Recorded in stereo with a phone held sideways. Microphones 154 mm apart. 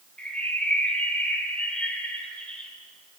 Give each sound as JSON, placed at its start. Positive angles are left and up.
{"t": 0.2, "sound": "a bird", "side_deg": 5, "distance_m": 3.0}